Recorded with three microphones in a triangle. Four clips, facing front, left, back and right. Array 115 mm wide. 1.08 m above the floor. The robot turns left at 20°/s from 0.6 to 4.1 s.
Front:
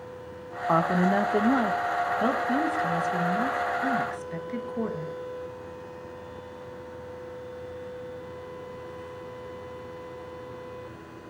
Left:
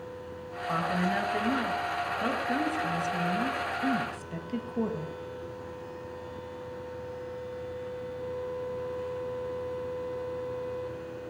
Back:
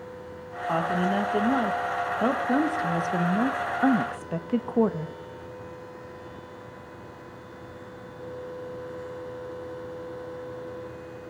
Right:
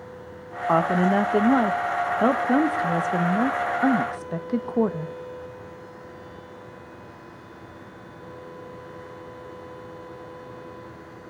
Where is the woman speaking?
65° right, 0.9 m; by 5.2 s 135° right, 0.9 m.